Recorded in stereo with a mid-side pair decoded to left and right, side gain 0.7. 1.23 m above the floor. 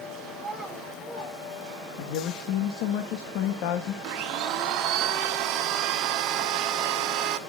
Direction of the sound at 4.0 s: 60° right.